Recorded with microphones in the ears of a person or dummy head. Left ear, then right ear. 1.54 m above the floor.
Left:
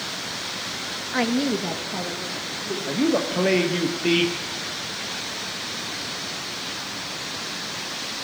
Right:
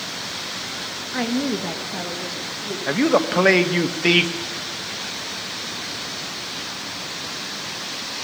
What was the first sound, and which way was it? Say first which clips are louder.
A woman speaking: left 1 dB; 25° left (ahead or behind).